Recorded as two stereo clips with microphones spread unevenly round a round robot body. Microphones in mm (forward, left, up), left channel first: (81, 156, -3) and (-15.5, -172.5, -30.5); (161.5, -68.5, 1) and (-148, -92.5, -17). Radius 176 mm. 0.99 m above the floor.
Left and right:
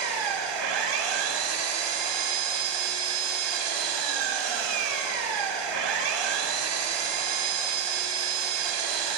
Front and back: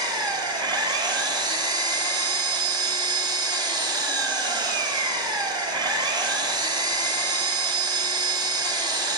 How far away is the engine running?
About 1.2 m.